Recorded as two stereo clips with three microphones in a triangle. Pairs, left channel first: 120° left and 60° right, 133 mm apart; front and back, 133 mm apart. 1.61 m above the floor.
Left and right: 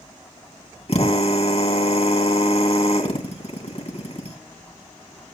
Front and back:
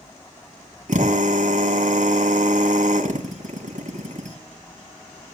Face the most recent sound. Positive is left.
turn(degrees=160)